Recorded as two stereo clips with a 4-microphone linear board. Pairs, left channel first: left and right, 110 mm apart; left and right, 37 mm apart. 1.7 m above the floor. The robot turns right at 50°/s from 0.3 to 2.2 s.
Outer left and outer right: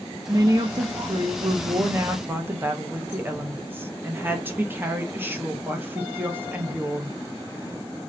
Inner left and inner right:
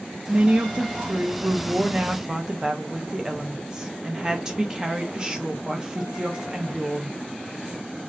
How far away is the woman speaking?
About 0.6 m.